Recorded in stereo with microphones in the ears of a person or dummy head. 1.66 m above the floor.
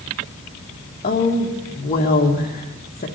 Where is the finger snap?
I don't hear a finger snap.